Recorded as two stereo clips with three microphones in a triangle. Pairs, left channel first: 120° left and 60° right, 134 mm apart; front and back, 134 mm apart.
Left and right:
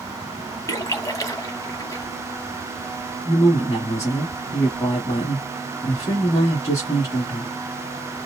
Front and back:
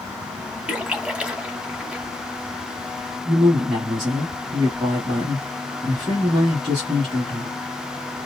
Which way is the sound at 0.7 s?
105° left.